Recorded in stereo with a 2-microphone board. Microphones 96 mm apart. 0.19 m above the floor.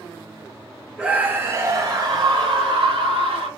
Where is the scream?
5° right (ahead or behind), 1.0 m; by 3.5 s 65° right (ahead or behind), 2.5 m.